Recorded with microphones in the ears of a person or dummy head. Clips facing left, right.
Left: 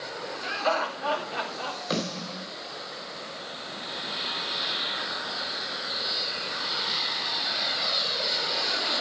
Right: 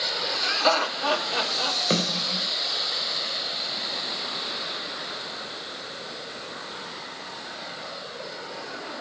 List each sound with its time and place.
0.4 s laughter: 60° right (ahead or behind), 4.5 m; by 1.8 s 50° right (ahead or behind), 3.5 m
1.9 s a snare drum: 40° right (ahead or behind), 3.5 m